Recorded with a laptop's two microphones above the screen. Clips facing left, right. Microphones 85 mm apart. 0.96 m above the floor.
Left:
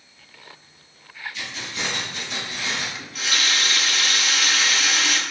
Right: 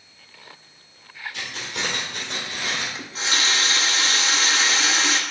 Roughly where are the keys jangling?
Right.